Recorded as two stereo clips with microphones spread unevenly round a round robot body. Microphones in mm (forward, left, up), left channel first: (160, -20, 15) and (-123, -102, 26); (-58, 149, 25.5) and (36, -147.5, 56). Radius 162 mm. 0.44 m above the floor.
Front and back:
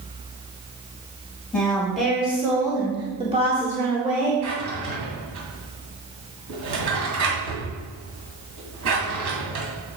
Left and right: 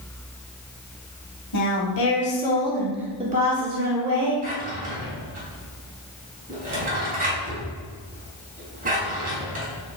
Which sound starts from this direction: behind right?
A drawer, at 4.4 s.